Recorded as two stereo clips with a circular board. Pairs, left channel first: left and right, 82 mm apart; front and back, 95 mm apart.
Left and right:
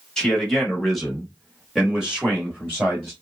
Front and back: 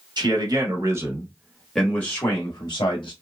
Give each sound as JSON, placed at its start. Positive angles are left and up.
{"t": 0.2, "sound": "a man speaking", "azimuth_deg": 170, "distance_m": 1.2}